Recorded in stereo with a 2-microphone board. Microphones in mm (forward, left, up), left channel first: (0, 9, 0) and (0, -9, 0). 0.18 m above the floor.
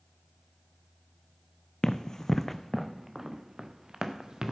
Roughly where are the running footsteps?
Left.